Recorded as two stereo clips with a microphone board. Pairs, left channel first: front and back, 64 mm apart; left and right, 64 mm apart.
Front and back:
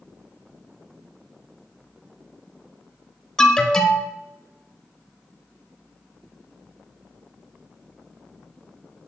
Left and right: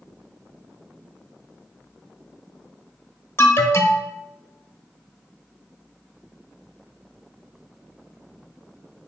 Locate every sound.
3.4 s an alarm: 70° left, 0.6 m